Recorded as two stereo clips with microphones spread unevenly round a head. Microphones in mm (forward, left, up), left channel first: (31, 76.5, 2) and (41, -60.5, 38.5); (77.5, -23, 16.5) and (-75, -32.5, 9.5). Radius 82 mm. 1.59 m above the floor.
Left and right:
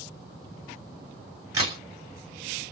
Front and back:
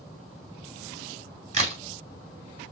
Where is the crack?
140° right, 2 m.